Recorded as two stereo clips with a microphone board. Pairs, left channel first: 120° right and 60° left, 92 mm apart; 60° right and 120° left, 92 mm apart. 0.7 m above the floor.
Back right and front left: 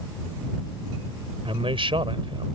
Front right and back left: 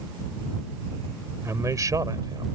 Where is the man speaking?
60° left; by 2.5 s 80° left.